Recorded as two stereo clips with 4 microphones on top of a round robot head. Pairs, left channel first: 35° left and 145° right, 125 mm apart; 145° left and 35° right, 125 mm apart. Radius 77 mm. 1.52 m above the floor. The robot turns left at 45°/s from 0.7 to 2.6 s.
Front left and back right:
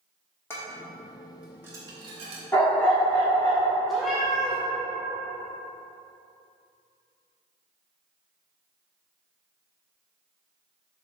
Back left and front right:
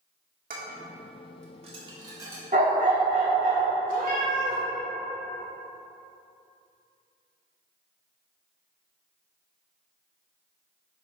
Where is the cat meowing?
55° right, 1.1 m.